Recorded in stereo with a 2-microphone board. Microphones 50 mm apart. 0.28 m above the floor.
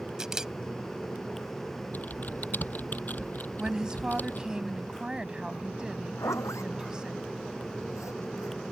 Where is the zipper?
80° left.